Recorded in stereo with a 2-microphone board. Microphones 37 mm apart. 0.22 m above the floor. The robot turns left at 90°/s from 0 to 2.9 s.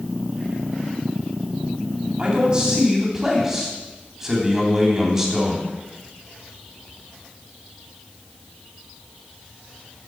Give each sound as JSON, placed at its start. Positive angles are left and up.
{"t": 2.2, "sound": "a man speaking", "azimuth_deg": -85, "distance_m": 1.7}